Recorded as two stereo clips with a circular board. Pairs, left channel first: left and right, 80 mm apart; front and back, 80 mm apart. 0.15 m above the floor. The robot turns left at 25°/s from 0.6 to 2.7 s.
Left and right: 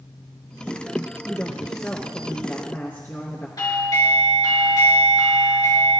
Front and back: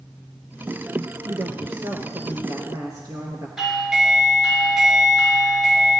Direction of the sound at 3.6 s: 95° left.